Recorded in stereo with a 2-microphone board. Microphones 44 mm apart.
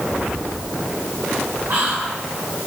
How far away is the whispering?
About 1.6 m.